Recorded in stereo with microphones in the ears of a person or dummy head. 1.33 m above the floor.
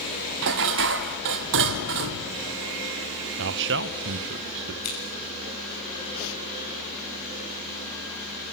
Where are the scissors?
80° left, 8 m.